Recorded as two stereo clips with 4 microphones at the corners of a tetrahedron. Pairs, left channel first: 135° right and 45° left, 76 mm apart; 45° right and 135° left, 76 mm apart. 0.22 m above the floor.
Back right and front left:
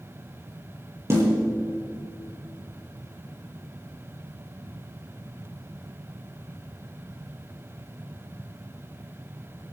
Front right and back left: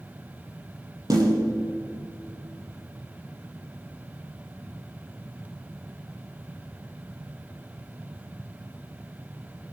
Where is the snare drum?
100° left, 6.5 m.